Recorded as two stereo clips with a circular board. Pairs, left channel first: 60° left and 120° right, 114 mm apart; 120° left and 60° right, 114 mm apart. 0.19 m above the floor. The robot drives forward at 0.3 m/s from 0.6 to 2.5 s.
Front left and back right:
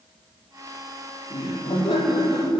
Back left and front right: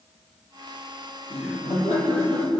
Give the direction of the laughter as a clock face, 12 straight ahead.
9 o'clock.